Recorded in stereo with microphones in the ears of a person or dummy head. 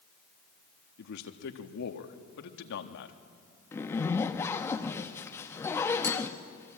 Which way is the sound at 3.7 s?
15° left (ahead or behind).